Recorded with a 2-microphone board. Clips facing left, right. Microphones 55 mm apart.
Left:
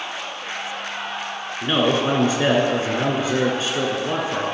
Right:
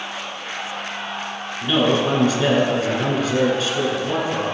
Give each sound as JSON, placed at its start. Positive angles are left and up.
{"t": 1.6, "sound": "a man speaking", "side_deg": 30, "distance_m": 1.5}